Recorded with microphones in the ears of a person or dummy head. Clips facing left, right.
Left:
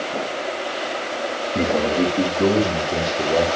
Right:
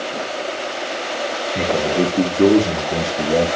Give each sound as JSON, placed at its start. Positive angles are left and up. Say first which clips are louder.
{"t": 1.6, "sound": "a man speaking", "louder": "right 1 dB", "side_deg": 15, "distance_m": 1.1}